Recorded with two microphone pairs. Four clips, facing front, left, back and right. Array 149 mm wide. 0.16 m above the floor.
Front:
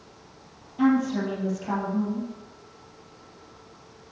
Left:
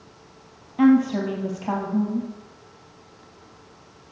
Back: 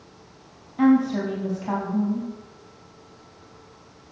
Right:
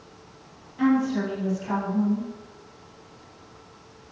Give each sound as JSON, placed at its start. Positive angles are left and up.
{"t": 0.8, "sound": "a woman speaking", "azimuth_deg": 105, "distance_m": 4.0}